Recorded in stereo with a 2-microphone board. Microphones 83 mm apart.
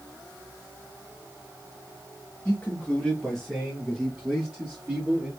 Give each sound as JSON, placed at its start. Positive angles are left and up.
{"t": 2.5, "sound": "a man speaking", "side_deg": 25, "distance_m": 1.0}